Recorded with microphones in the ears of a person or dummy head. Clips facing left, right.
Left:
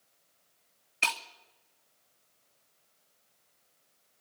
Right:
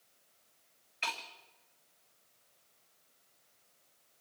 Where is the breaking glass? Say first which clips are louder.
Left 5 dB; 50° left (ahead or behind), 1.6 m.